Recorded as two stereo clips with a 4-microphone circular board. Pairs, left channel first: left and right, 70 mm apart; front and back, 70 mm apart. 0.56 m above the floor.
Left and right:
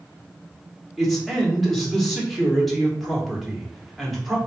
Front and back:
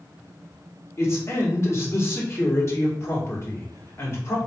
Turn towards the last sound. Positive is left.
turn(degrees=0)